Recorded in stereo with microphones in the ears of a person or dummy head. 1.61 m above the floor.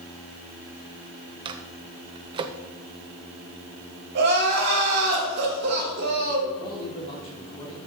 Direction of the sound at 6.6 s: 30° left (ahead or behind).